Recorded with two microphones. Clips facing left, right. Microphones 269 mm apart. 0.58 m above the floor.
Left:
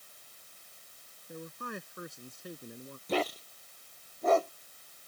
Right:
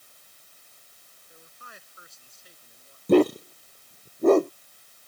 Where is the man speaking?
60° left (ahead or behind); by 3.0 s 65° left (ahead or behind).